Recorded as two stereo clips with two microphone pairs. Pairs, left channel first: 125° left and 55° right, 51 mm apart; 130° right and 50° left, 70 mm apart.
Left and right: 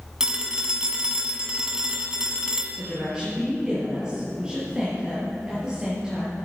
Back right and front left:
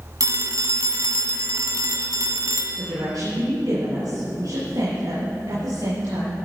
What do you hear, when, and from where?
0.2 s a phone ringing: 15° left, 1.5 m
2.8 s a woman speaking: 15° left, 6 m